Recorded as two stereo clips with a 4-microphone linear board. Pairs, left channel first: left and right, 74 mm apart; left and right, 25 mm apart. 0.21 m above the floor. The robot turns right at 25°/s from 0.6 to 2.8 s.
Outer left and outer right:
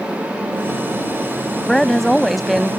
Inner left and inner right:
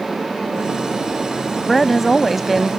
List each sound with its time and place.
1.7 s a woman speaking: 5° left (ahead or behind); by 2.7 s centre (ahead or behind)